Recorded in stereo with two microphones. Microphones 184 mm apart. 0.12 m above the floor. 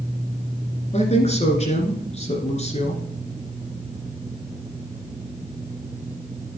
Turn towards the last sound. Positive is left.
turn(degrees=35)  # may be behind; listen again after turning